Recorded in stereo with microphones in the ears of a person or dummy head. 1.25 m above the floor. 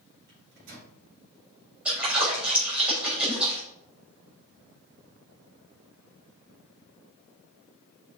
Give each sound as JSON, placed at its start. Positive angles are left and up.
{"t": 0.3, "sound": "a microwave", "side_deg": -60, "distance_m": 3.5}
{"t": 1.9, "sound": "a splash", "side_deg": -5, "distance_m": 4.0}